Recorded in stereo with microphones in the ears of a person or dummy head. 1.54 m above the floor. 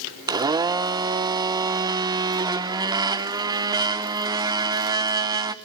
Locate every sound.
0.3 s a blender: 20° right (ahead or behind), 1.0 m